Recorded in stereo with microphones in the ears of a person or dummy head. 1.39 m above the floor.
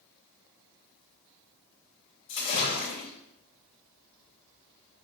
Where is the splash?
45° left (ahead or behind), 3.5 m.